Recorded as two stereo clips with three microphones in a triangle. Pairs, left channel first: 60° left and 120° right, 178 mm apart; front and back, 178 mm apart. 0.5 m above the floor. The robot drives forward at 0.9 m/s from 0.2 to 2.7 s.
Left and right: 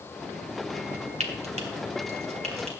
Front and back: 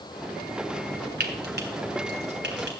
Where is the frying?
170° right, 1.8 m; by 2.8 s 175° right, 3 m.